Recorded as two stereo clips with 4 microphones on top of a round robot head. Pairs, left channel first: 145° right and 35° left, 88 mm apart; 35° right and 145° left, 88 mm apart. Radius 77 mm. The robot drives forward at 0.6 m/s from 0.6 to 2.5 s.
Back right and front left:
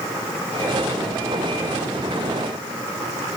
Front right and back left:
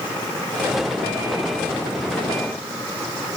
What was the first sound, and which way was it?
Only background noise.